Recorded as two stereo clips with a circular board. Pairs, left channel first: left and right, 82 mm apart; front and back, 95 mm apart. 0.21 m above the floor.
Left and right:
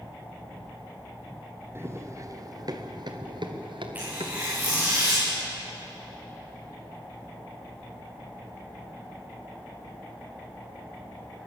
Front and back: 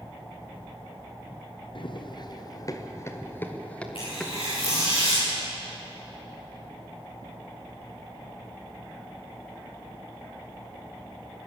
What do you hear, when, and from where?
1.8 s running footsteps: 30° right, 2.5 m; by 5.0 s 95° right, 3.5 m
4.0 s tearing paper: 25° right, 9 m